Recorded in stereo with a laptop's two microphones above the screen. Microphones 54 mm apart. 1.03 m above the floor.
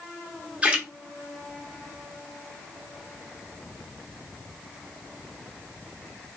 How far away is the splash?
About 0.7 m.